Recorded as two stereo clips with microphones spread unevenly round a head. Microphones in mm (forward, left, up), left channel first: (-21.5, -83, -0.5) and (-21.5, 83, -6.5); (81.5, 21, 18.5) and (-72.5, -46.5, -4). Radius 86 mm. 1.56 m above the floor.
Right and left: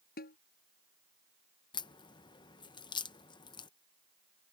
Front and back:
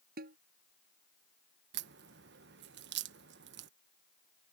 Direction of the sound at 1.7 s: 150° right.